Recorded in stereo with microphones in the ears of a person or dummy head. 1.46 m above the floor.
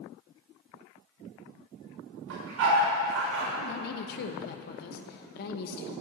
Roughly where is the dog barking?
Right.